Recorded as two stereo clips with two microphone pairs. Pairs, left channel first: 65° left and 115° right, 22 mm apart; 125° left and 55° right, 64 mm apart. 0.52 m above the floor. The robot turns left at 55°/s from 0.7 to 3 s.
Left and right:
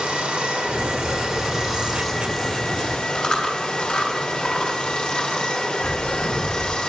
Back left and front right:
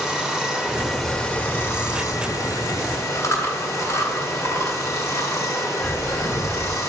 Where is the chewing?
100° left, 2 m.